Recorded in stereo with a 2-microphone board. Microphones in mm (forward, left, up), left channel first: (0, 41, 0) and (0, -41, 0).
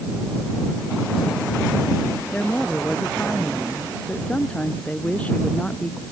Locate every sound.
2.3 s a woman speaking: 10° left (ahead or behind); by 6.0 s 20° left (ahead or behind)